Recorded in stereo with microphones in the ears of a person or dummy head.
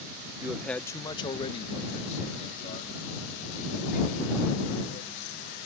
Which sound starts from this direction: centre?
A man speaking, at 0.4 s.